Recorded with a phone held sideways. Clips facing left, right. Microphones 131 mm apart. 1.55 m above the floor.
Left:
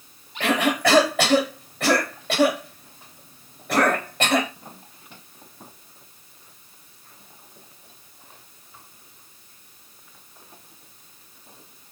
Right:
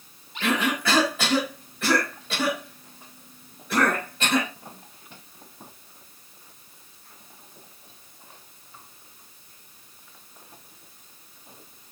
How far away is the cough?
About 4 m.